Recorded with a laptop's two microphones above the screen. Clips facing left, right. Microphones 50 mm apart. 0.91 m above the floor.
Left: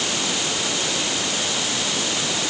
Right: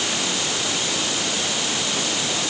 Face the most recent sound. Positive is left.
No sound to turn to.